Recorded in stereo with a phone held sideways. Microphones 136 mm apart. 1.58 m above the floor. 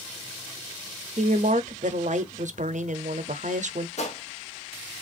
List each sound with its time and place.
1.2 s a woman speaking: 65° right (ahead or behind), 0.6 m
4.0 s a gunshot: 55° left (ahead or behind), 1.0 m